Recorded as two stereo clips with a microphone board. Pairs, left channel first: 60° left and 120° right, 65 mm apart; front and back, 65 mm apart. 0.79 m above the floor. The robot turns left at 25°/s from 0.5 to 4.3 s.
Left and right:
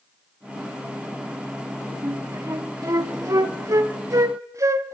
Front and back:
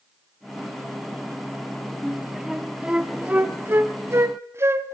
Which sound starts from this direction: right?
A flute, at 2.0 s.